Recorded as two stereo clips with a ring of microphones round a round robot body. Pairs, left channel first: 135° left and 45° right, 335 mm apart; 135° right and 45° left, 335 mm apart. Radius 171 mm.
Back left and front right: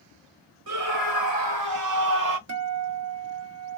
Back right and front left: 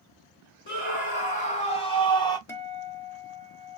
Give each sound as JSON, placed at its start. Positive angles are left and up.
{"t": 0.7, "sound": "a scream", "azimuth_deg": -70, "distance_m": 2.0}
{"t": 2.5, "sound": "a guitar", "azimuth_deg": -55, "distance_m": 1.1}